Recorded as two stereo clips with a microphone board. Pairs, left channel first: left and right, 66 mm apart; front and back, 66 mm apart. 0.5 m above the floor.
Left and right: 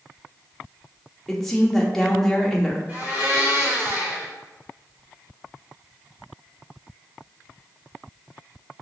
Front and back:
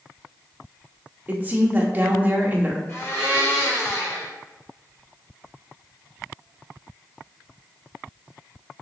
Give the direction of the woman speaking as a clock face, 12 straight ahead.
6 o'clock.